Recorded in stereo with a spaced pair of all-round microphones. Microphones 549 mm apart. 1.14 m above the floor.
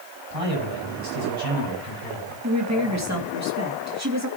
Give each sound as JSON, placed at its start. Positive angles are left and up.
{"t": 0.3, "sound": "a man speaking", "side_deg": -80, "distance_m": 8.0}
{"t": 2.4, "sound": "a woman speaking", "side_deg": -30, "distance_m": 2.5}